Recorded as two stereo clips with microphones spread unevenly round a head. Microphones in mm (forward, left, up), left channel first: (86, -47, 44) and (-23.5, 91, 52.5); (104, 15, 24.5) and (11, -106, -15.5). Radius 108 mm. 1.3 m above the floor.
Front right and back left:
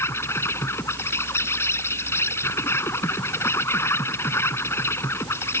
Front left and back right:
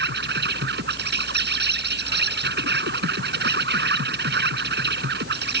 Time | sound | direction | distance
0.0 | an insect | 130° right | ?